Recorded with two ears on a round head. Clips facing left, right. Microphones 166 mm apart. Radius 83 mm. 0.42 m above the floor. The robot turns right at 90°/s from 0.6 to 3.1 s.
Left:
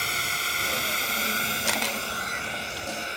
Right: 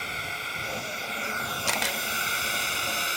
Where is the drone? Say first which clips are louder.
Left 2 dB; 60° left (ahead or behind); by 3.2 s 60° right (ahead or behind).